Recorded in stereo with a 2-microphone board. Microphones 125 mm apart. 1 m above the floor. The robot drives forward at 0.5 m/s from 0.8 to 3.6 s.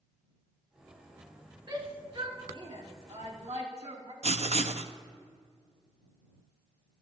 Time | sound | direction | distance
1.7 | a shout | 40° right (ahead or behind) | 2.5 m
4.2 | writing | 60° right (ahead or behind) | 0.5 m